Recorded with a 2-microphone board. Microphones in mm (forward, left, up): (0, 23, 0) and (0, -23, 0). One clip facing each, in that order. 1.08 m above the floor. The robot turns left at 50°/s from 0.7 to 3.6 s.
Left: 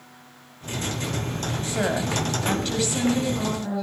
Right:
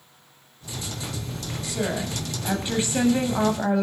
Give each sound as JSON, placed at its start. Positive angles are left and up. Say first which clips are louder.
{"t": 1.6, "sound": "a woman speaking", "louder": "left 2 dB", "azimuth_deg": 35, "distance_m": 7.5}